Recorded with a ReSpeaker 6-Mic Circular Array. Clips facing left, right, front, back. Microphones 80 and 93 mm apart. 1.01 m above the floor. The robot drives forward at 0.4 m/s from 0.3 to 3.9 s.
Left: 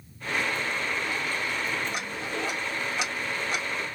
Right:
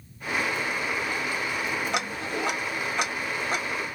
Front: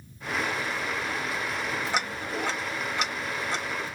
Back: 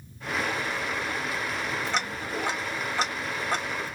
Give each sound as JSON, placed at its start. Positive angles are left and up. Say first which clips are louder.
{"t": 1.9, "sound": "ticking", "louder": "right 3 dB, even", "azimuth_deg": -80, "distance_m": 0.5}